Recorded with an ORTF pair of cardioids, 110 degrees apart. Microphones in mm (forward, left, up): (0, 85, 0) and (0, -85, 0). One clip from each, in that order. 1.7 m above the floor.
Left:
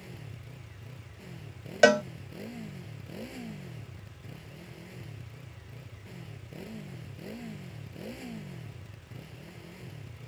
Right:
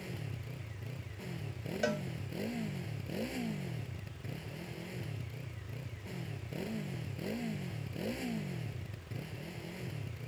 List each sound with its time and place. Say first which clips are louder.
0.0 s a motorcycle: right 3 dB; 20° right
1.8 s a cowbell: left 15 dB; 65° left